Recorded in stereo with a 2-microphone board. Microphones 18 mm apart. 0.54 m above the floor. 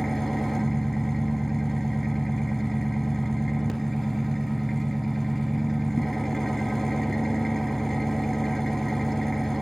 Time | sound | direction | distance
0.0 | an engine running | centre (ahead or behind) | 2.5 m